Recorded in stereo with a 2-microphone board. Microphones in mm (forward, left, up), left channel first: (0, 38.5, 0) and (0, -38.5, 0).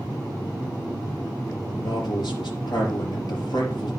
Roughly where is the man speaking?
Left.